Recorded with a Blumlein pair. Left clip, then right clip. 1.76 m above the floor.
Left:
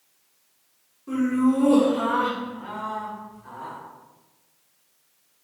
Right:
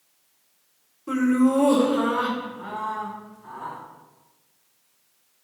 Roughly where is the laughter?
Right.